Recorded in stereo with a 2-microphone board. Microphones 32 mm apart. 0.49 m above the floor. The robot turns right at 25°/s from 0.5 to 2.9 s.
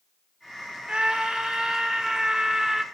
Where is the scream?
15° right (ahead or behind), 0.8 m; by 2.8 s 5° right (ahead or behind), 0.8 m.